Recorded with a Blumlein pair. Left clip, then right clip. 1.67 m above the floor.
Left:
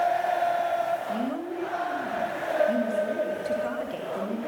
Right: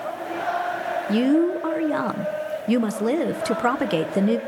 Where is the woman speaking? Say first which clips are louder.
Right 10 dB; 35° right, 1.5 m.